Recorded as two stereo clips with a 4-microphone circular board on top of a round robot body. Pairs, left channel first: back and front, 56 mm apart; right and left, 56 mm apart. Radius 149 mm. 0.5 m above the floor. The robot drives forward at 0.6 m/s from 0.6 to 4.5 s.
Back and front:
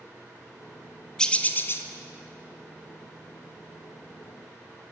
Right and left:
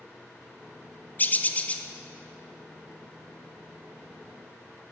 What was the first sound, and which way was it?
A bird, 110° right.